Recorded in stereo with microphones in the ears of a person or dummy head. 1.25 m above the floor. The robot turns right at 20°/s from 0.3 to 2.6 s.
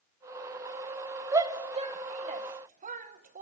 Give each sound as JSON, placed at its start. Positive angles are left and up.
{"t": 1.3, "sound": "a shout", "side_deg": -20, "distance_m": 0.9}